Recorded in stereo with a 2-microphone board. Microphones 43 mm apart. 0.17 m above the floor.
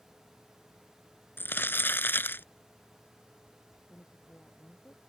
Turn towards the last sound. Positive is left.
turn(degrees=45)  # may be behind; listen again after turning